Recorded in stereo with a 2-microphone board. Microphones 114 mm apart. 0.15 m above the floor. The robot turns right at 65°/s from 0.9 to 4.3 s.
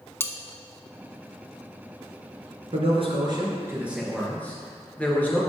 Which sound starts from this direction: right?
A man speaking, at 2.7 s.